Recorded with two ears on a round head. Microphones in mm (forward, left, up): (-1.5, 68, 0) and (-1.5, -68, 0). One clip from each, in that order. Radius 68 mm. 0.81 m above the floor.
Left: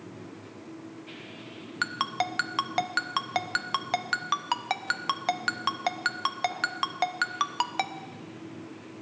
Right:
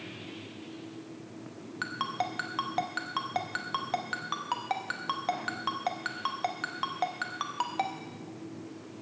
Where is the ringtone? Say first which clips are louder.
Left 4 dB; 45° left (ahead or behind), 0.5 m.